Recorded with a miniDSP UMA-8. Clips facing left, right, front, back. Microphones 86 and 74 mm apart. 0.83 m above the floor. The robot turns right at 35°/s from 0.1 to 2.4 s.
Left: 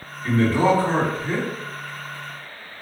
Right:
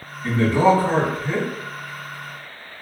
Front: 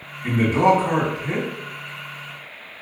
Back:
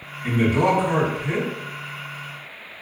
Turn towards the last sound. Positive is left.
turn(degrees=35)